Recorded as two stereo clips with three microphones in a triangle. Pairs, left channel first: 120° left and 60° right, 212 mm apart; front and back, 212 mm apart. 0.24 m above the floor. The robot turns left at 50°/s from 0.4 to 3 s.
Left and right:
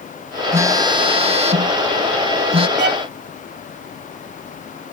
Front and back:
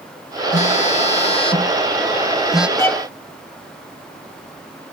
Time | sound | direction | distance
0.5 | a phone buzzing | 10° left | ?
2.8 | a violin | 75° right | ?